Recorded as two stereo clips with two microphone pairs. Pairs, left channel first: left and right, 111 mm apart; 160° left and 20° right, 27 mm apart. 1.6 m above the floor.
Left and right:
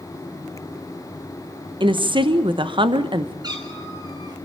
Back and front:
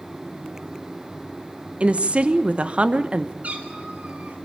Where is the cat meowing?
40° right, 3.5 m.